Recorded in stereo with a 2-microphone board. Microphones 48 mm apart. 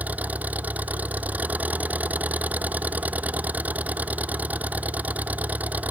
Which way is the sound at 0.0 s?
35° right (ahead or behind).